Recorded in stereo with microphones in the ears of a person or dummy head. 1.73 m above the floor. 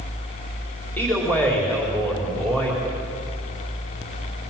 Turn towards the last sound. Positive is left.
turn(degrees=15)  # may be behind; listen again after turning